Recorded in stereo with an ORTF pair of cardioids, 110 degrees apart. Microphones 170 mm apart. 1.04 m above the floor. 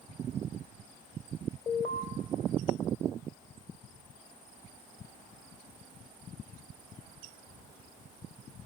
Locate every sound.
1.7 s an alarm: 30° left, 3.5 m